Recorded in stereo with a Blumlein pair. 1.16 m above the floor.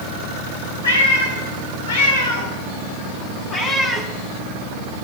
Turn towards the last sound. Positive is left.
turn(degrees=0)